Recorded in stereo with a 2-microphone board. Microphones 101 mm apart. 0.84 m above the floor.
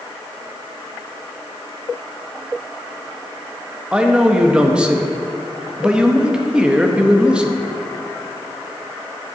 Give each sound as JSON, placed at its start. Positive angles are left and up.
{"t": 3.9, "sound": "a man speaking", "side_deg": -10, "distance_m": 0.6}